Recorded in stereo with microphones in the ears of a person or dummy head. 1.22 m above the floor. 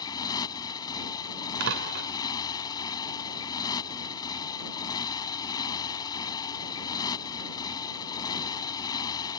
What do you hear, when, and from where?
0.0 s a motorcycle: 20° left (ahead or behind)
1.6 s a door slam: 70° right (ahead or behind)